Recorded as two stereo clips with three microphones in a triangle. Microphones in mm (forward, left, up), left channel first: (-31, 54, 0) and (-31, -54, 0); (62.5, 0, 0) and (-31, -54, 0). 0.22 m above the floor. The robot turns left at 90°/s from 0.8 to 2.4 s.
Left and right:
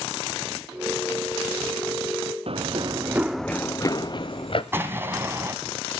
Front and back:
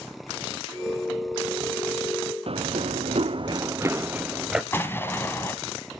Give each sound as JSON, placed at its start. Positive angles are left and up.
{"t": 2.5, "sound": "running footsteps", "azimuth_deg": -120, "distance_m": 0.8}
{"t": 4.7, "sound": "an explosion", "azimuth_deg": -30, "distance_m": 1.6}